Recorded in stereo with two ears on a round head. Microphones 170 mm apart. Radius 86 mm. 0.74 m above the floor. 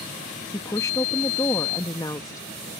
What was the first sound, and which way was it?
A woman speaking, 20° left (ahead or behind).